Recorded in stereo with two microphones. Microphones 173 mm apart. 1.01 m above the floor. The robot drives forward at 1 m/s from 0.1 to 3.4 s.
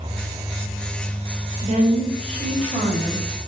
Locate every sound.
1.6 s a woman speaking: 45° right (ahead or behind), 3 m; by 3.2 s 30° right (ahead or behind), 4 m